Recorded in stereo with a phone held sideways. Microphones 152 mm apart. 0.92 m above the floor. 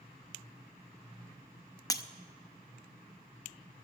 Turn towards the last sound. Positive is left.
turn(degrees=20)  # may be behind; listen again after turning